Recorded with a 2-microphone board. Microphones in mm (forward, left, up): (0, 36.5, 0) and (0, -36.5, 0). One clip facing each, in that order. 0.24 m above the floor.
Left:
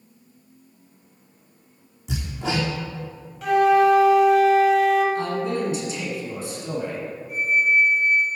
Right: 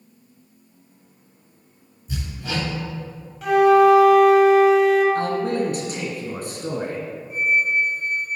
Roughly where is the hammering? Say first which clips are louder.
Left 3 dB; left.